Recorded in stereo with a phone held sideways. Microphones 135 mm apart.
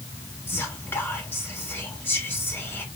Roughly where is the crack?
No crack in this recording.